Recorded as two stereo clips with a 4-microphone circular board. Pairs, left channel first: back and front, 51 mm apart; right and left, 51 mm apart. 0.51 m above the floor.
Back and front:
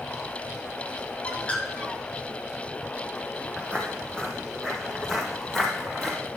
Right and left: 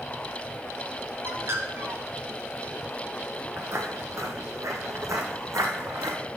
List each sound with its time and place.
1.2 s a bird: 120° left, 0.9 m
3.6 s footsteps: 115° left, 1.1 m; by 6.2 s 95° left, 2.5 m